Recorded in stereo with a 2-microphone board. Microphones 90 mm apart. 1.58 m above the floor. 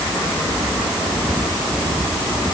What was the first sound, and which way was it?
Only background noise.